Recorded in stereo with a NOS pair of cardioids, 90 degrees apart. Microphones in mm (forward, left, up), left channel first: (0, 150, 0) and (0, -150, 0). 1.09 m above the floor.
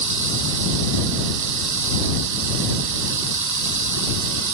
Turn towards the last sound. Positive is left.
turn(degrees=-65)